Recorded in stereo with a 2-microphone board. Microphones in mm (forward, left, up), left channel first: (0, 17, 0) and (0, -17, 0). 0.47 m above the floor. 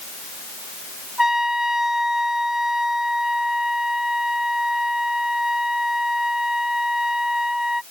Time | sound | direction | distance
1.2 | a trumpet | 15° right (ahead or behind) | ?